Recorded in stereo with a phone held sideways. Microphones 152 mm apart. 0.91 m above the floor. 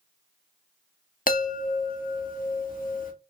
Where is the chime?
65° left (ahead or behind), 0.7 m.